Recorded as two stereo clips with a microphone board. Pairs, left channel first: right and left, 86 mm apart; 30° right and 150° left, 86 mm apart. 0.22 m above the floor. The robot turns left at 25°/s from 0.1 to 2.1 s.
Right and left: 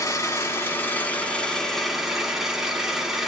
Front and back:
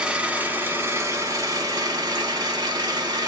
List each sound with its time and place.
0.0 s an engine running: 135° right, 0.7 m; by 3.3 s 175° left, 0.7 m